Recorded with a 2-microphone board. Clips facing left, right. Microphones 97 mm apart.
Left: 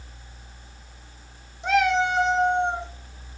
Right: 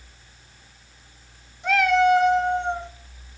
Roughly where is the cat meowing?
Left.